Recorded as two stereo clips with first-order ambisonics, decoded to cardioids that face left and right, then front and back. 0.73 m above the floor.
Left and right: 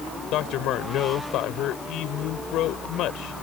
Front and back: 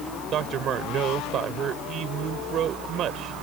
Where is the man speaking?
130° left.